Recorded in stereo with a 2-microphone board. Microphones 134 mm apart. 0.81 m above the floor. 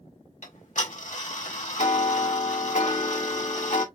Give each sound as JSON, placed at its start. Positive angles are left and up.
{"t": 0.4, "sound": "ticking", "side_deg": 70, "distance_m": 1.4}